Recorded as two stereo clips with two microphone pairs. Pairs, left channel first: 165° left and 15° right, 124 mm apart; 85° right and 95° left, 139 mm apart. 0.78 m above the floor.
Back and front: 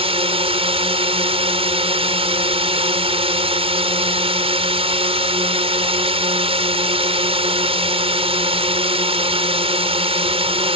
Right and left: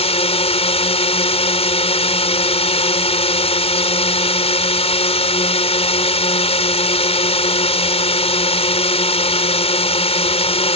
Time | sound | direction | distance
0.0 | a drone | 45° right | ?